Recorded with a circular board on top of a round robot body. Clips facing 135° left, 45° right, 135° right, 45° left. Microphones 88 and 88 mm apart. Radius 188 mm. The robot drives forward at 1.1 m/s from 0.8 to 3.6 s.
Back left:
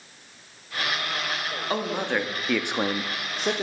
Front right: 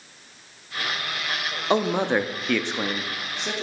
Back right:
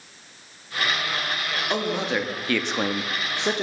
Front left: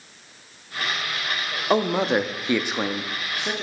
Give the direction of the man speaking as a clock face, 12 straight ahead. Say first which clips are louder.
Front right 6 dB, front left 6 dB; 12 o'clock.